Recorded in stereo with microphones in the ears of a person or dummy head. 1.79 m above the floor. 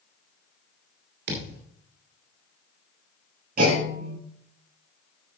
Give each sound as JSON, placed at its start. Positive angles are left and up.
{"t": 1.3, "sound": "a thud", "side_deg": -65, "distance_m": 3.0}
{"t": 3.6, "sound": "a clunk", "side_deg": -55, "distance_m": 6.5}